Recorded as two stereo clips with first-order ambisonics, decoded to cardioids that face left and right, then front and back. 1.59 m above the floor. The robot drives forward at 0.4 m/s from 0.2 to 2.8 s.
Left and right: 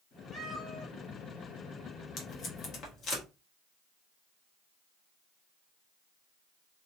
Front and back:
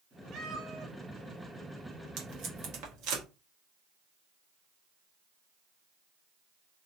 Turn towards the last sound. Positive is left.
turn(degrees=145)